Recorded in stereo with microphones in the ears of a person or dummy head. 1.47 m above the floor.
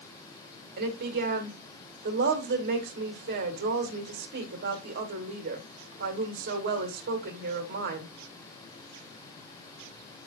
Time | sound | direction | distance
0.8 | a woman speaking | 45° right (ahead or behind) | 1.6 m